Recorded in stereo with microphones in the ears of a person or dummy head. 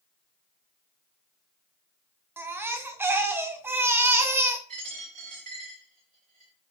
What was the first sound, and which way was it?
A baby crying, 20° right (ahead or behind).